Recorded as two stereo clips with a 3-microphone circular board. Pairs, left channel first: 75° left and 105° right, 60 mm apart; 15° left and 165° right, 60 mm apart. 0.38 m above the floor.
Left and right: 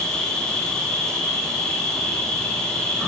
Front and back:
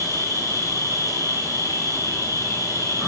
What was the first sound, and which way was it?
An insect, 5° right.